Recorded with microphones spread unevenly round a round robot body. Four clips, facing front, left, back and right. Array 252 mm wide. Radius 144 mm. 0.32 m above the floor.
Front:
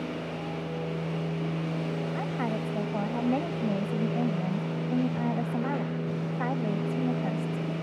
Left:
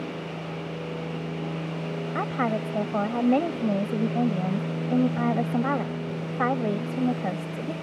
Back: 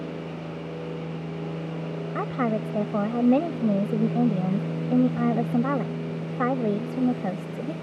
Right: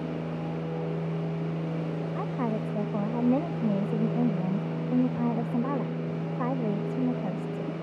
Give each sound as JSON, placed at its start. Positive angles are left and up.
{"t": 2.1, "sound": "a woman speaking", "azimuth_deg": 180}